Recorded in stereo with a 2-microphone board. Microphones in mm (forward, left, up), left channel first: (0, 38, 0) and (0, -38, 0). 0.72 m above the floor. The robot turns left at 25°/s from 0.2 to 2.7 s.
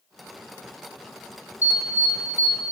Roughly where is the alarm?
Left.